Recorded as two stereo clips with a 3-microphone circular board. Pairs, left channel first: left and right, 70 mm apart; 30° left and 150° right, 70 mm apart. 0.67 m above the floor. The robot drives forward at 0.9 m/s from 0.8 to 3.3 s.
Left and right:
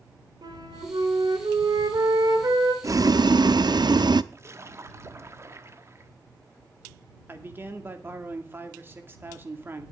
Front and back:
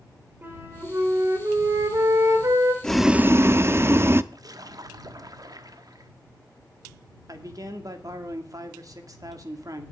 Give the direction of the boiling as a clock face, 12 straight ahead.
2 o'clock.